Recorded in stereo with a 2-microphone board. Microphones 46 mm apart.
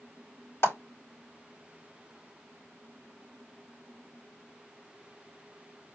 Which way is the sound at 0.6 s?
70° left (ahead or behind).